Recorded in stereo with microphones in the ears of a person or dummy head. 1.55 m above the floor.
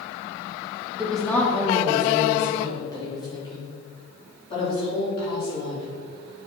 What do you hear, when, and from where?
1.0 s a woman speaking: 5° right (ahead or behind), 1.3 m; by 5.8 s 30° left (ahead or behind), 5 m